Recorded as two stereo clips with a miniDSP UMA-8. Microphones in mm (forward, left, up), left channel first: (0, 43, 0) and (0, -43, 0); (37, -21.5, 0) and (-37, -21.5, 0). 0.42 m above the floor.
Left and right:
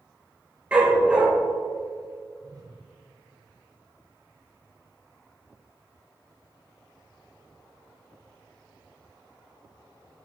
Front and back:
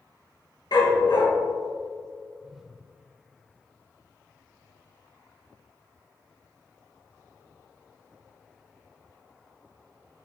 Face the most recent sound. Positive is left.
turn(degrees=-100)